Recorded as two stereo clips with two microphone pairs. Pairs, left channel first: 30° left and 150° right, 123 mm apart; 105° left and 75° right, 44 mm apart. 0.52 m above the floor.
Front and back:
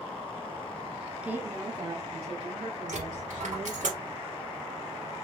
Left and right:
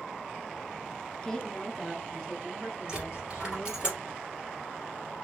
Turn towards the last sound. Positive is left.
turn(degrees=-150)